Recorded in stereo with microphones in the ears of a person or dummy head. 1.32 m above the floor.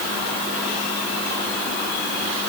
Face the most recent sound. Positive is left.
No sound to turn to.